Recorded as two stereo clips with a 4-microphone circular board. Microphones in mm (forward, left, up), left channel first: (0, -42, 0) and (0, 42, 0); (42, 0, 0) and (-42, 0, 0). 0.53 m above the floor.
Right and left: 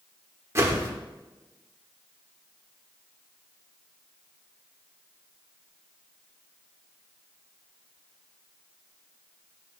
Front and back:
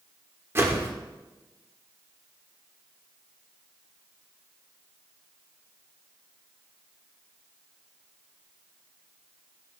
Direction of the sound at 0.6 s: 135° left.